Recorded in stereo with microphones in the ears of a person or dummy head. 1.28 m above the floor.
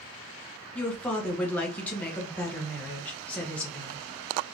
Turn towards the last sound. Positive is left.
turn(degrees=10)  # may be behind; listen again after turning